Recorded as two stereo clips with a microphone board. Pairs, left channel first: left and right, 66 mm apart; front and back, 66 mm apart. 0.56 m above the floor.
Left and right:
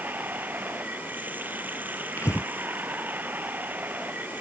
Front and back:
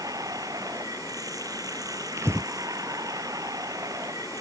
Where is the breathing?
135° left.